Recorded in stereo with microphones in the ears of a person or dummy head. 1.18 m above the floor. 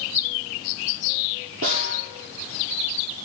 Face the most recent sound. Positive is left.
turn(degrees=-80)